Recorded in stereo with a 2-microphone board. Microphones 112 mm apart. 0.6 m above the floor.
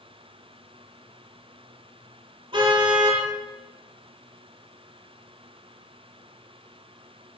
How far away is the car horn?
About 7 m.